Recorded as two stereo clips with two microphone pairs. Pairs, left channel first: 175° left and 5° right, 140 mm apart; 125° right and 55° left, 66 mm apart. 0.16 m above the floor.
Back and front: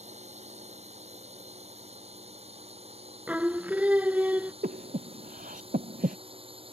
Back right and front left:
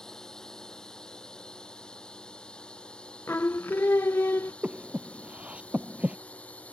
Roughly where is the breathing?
Ahead.